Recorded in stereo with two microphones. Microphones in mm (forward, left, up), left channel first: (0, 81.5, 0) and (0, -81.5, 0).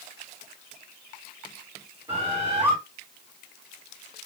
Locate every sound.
2.1 s a bird: 30° right (ahead or behind), 1.8 m